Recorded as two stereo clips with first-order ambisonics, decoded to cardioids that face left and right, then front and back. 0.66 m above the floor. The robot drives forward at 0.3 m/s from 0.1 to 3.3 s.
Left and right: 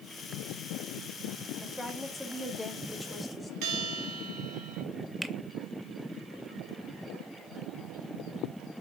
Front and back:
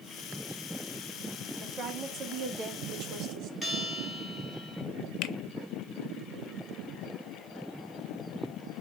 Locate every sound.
1.6 s a woman speaking: 175° left, 1.0 m
3.6 s a bell: 105° right, 1.6 m
5.2 s a finger snap: 5° right, 0.5 m